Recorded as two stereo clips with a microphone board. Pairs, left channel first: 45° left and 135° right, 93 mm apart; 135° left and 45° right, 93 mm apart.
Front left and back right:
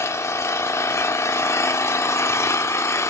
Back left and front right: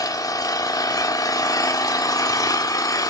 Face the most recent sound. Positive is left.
turn(degrees=95)